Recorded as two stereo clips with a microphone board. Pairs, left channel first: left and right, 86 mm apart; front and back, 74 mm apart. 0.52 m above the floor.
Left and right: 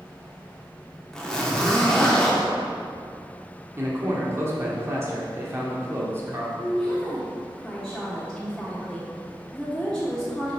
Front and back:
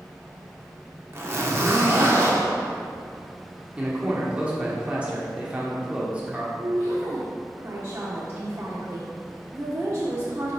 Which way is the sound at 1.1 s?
170° left.